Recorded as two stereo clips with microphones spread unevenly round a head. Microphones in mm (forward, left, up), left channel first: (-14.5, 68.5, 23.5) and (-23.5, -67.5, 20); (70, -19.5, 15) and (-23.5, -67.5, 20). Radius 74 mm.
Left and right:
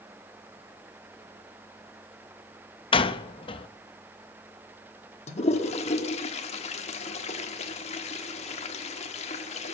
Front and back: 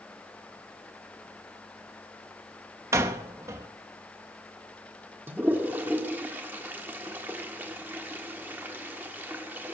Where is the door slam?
135° left, 0.9 m.